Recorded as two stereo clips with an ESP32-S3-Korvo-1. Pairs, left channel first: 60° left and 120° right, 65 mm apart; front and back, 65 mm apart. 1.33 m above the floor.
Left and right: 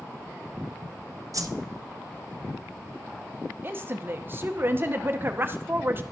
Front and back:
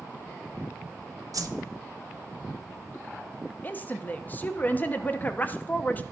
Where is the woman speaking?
65° right, 0.6 m.